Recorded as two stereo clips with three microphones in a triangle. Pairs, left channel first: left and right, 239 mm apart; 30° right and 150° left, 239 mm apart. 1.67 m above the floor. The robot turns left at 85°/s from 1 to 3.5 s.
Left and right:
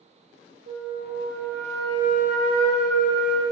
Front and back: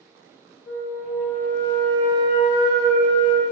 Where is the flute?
85° right, 1.0 m; by 3.4 s 70° left, 1.0 m.